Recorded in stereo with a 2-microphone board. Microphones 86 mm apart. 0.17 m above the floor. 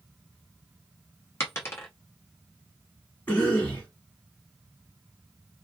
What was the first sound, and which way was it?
A dropped coin, 30° left (ahead or behind).